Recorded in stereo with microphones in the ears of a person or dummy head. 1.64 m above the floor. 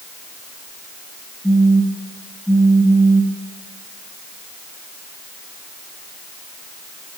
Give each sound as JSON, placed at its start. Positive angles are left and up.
{"t": 1.4, "sound": "a phone buzzing", "side_deg": 20, "distance_m": 1.3}